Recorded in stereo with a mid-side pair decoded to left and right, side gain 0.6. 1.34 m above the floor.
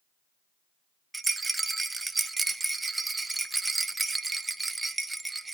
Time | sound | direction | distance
1.1 | a rattle | 15° right | 0.6 m